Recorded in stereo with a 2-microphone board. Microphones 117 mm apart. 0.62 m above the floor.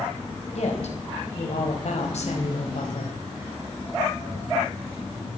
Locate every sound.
0.6 s a woman speaking: 70° left (ahead or behind), 4 m